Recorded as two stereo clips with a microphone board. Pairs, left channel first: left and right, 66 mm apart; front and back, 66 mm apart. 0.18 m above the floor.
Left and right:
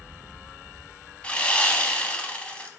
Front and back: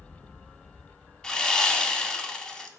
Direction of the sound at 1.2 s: 65° left.